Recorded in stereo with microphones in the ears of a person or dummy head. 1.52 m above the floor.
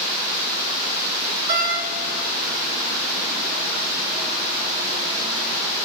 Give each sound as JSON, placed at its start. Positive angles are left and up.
{"t": 1.5, "sound": "a door slam", "side_deg": -50, "distance_m": 1.9}